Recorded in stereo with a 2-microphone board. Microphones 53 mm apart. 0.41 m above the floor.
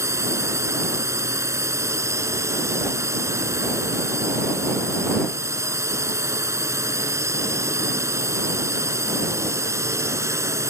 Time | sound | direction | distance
0.0 | a drone | 70° right (ahead or behind) | ?